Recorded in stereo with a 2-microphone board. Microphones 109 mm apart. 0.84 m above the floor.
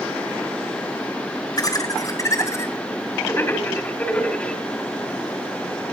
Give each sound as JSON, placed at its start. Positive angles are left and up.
{"t": 1.6, "sound": "laughter", "side_deg": 35, "distance_m": 4.5}